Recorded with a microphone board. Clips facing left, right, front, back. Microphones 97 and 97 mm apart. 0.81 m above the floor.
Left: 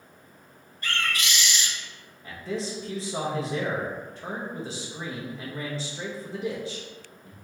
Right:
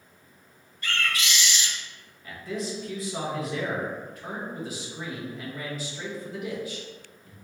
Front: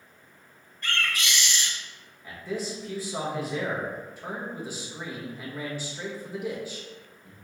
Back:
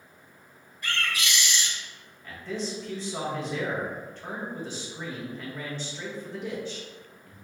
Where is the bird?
100° left, 1.3 m.